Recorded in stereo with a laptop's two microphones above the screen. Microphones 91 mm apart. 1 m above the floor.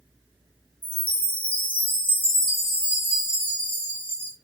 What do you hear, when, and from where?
0.8 s a chime: 60° left (ahead or behind), 2 m